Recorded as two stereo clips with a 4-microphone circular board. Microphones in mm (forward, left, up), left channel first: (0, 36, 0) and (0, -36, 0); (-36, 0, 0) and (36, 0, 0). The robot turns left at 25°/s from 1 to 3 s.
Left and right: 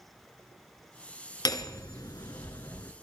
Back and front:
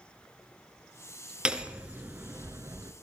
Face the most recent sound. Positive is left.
turn(degrees=40)